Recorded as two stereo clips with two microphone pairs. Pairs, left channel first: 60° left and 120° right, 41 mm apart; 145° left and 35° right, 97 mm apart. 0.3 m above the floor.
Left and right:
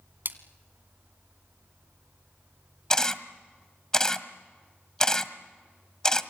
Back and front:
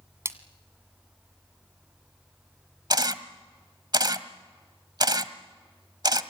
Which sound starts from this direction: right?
A splash, at 0.2 s.